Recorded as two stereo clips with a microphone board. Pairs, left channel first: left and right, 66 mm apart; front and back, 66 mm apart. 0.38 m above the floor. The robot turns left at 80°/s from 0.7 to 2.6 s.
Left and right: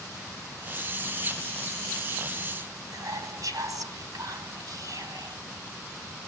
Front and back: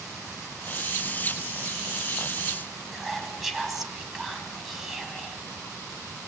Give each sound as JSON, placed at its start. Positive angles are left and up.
{"t": 2.9, "sound": "whispering", "azimuth_deg": -95, "distance_m": 3.0}